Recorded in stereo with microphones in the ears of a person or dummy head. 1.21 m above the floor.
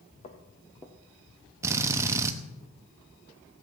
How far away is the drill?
About 0.9 m.